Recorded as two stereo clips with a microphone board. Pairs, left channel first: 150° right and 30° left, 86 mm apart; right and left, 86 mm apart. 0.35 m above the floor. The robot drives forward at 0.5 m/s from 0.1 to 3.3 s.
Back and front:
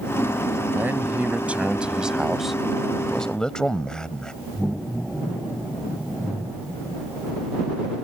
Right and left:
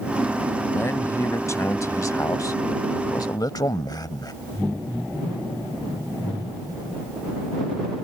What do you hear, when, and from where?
0.7 s a man speaking: 35° right; by 4.3 s 70° right